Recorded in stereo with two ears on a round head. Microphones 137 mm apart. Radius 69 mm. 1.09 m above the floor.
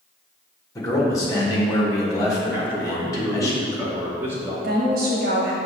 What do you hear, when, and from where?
0.8 s a man speaking: 20° left (ahead or behind), 1.4 m
2.5 s a man speaking: 15° right (ahead or behind), 1.6 m
4.6 s a woman speaking: 65° right (ahead or behind), 1.1 m